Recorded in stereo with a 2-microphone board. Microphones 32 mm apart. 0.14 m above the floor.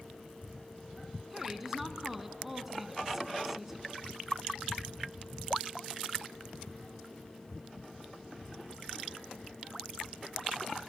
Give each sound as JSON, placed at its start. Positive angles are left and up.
{"t": 1.3, "sound": "a woman speaking", "side_deg": -10, "distance_m": 1.5}